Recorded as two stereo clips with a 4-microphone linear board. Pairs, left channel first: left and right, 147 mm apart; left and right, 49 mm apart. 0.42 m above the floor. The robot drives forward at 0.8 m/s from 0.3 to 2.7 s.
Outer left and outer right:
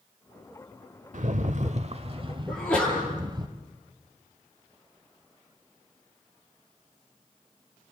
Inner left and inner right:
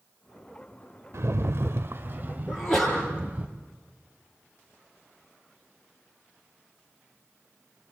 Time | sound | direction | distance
1.1 | a rattle | 60° right (ahead or behind) | 0.9 m
2.5 | a sneeze | 5° left (ahead or behind) | 8 m